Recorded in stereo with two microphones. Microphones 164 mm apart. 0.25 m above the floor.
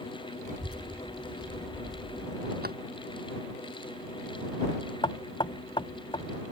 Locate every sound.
0.4 s a child speaking: 60° right (ahead or behind); by 2.5 s 35° left (ahead or behind)
2.6 s a drawer: 70° right (ahead or behind)
5.0 s knocking: 30° left (ahead or behind)